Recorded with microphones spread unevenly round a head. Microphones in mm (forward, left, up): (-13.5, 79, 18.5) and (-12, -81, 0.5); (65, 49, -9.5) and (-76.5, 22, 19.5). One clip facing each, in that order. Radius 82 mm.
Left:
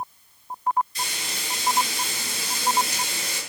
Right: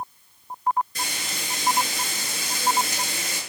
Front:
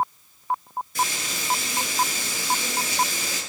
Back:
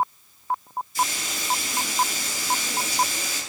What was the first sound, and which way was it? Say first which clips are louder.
Frying: right 1 dB, back 1 dB; 40° right.